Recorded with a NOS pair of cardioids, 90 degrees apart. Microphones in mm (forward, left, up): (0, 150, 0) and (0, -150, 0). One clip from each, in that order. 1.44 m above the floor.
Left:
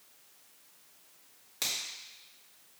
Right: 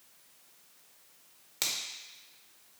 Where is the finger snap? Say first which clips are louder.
Right 1 dB; 25° right, 1.8 m.